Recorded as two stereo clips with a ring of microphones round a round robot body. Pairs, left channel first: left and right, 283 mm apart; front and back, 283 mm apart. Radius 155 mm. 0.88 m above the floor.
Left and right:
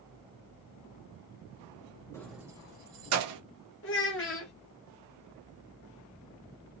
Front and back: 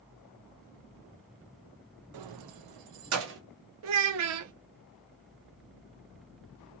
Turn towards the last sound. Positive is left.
turn(degrees=145)